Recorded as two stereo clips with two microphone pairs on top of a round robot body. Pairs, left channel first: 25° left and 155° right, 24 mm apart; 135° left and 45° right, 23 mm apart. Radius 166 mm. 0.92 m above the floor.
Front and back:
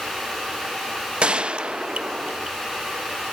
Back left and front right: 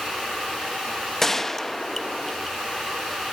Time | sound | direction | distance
1.2 | a gunshot | 145° right | 0.6 m